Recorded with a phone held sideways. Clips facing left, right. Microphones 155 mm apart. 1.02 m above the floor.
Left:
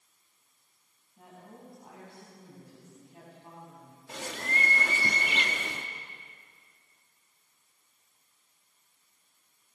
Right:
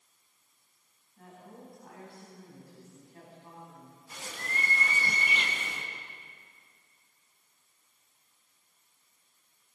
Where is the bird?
80° left, 1.8 m.